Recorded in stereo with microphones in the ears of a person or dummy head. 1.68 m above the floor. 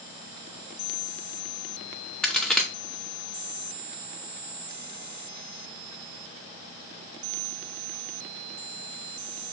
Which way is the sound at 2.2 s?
10° left (ahead or behind).